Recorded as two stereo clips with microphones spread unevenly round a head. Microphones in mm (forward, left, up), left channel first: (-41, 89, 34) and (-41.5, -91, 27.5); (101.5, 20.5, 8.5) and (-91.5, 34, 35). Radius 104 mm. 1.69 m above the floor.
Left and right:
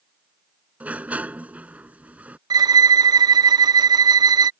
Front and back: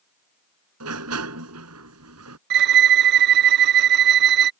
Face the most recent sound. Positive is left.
turn(degrees=-160)